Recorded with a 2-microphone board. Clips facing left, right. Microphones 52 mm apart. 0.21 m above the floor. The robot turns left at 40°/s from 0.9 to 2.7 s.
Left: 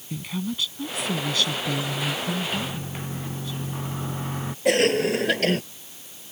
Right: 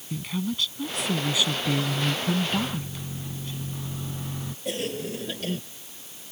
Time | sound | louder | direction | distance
0.1 | a woman speaking | even | 5° left | ?
2.5 | a microwave | right 1 dB | 35° left (ahead or behind) | ?
4.7 | a cough | left 11 dB | 75° left (ahead or behind) | ?